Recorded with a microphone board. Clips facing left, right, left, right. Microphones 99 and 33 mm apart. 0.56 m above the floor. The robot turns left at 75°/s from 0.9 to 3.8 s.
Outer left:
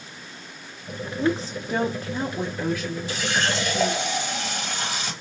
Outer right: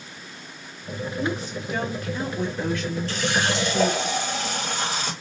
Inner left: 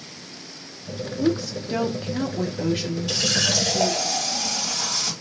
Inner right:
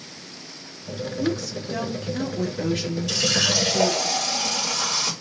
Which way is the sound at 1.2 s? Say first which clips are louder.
Outer left 5 dB, inner left 4 dB; 125° left.